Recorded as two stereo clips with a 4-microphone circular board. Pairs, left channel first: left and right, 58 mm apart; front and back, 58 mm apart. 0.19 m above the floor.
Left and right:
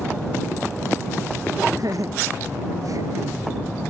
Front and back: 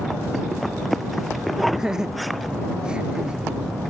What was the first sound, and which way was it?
Laughter, 100° right.